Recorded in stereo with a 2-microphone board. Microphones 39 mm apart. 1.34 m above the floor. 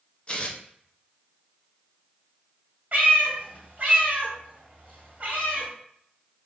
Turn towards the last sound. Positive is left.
turn(degrees=-45)  # may be behind; listen again after turning